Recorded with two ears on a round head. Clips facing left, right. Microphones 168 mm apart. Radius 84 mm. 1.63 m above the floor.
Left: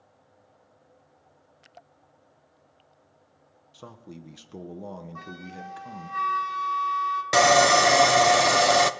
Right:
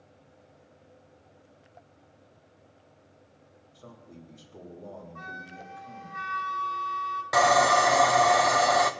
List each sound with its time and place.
3.7 s a man speaking: 80° left, 1.2 m
5.2 s a flute: 65° left (ahead or behind), 1.7 m
7.3 s sawing: 35° left (ahead or behind), 0.6 m